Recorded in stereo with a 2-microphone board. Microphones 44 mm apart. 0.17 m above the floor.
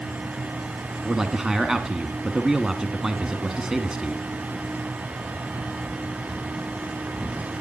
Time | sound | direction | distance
1.1 | a man speaking | 10° right (ahead or behind) | 1.6 m